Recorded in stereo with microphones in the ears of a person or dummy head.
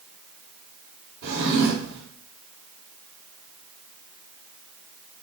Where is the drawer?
60° right (ahead or behind), 1.6 m.